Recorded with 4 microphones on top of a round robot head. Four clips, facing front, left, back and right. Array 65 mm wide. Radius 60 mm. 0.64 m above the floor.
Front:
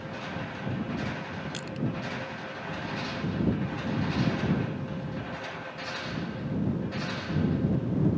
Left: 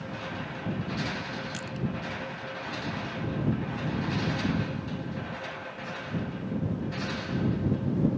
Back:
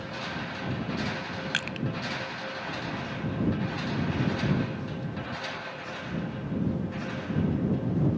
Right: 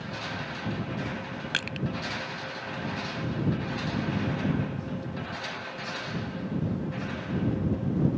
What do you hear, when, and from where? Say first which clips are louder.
1.5 s crushing: right 3 dB, back 4 dB; 135° right